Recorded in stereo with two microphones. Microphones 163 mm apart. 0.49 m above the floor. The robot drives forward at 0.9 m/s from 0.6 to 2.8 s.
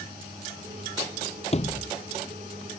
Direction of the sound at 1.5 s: 40° left (ahead or behind).